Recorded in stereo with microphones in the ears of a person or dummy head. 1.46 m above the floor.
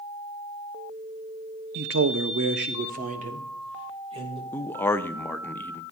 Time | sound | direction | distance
1.8 | a man speaking | 60° right (ahead or behind) | 0.7 m
4.5 | a man speaking | 10° left (ahead or behind) | 0.5 m